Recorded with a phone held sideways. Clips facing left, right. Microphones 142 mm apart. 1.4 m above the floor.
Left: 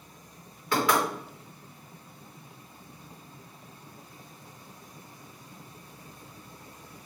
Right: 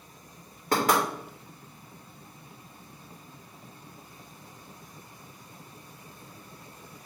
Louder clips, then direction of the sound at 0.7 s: Right 1 dB; 45° right (ahead or behind).